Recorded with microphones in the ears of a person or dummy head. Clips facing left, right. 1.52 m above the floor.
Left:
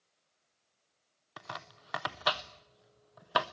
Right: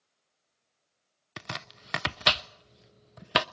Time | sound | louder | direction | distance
1.4 | chopping | right 4 dB | 30° right (ahead or behind) | 0.6 m